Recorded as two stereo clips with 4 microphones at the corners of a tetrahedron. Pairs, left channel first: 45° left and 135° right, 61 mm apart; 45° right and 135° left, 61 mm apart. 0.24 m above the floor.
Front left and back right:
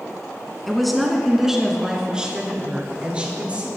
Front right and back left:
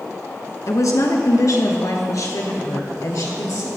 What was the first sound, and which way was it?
A woman speaking, 40° right.